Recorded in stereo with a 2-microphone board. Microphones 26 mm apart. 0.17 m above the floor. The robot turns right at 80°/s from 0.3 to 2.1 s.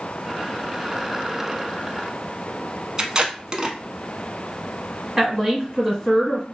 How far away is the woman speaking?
About 1.6 m.